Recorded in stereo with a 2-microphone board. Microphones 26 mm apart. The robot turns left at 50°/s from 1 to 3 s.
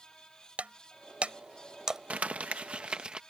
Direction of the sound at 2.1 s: 90° right.